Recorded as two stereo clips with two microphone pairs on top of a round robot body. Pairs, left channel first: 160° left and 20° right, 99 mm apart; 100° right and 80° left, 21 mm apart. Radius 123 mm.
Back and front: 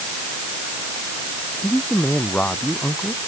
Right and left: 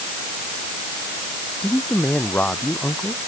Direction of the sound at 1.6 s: 125° right.